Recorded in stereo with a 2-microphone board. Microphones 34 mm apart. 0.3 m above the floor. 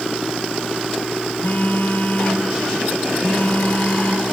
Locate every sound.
1.4 s a phone buzzing: 55° left (ahead or behind), 4.5 m